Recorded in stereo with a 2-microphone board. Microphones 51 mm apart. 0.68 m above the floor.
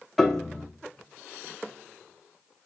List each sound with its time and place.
0.2 s a piano: 5° left (ahead or behind), 0.8 m